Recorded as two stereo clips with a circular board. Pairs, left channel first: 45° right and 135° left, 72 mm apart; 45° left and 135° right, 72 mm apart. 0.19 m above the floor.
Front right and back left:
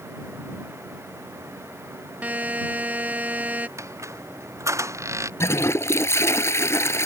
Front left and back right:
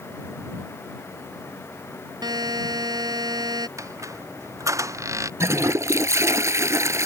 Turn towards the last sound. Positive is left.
turn(degrees=-95)